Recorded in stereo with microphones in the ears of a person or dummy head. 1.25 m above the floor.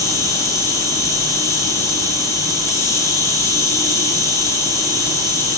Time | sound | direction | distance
0.0 | an insect | 10° left (ahead or behind) | 2.5 m